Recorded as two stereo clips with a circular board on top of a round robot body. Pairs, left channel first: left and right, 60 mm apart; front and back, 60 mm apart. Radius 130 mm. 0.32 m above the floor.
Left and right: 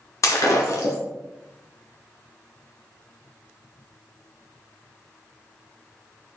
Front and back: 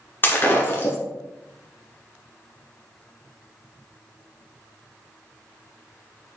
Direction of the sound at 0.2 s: 60° left.